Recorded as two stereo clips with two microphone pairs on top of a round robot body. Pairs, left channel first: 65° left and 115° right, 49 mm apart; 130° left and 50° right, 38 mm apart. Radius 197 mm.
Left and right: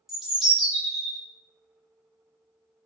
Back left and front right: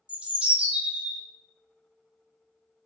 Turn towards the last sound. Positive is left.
turn(degrees=-55)